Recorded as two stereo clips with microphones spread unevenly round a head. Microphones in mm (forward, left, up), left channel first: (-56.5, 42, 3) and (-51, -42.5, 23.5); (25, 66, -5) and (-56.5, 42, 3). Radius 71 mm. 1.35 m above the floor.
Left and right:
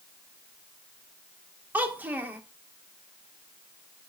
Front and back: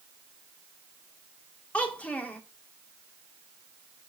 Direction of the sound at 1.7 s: 60° right.